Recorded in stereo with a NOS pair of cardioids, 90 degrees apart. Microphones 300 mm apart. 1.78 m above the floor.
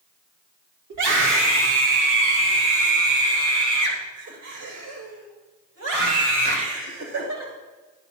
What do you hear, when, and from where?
0.9 s a scream: 70° right, 5.5 m